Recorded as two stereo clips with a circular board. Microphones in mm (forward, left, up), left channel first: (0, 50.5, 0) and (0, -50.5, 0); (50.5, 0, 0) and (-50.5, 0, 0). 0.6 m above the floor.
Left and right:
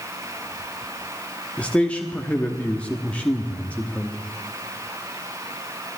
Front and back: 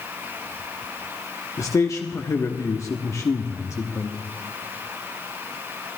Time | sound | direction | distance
1.6 | a man speaking | 25° left | 1.1 m